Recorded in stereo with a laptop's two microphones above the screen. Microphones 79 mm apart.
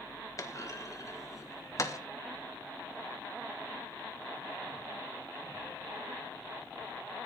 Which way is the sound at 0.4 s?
45° left (ahead or behind).